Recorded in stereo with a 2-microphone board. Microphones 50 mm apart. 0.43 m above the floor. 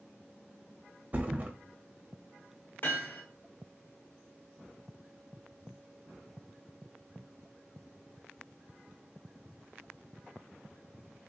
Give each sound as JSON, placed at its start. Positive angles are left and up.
{"t": 1.1, "sound": "a thud", "side_deg": -35, "distance_m": 0.6}
{"t": 2.8, "sound": "hammering", "side_deg": 45, "distance_m": 1.4}